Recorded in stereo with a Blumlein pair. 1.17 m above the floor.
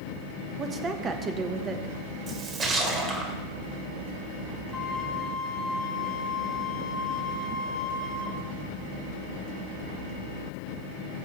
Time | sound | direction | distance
0.6 | a woman speaking | 25° right | 1.2 m
2.3 | a splash | 25° right | 2 m
4.7 | a flute | 20° left | 2 m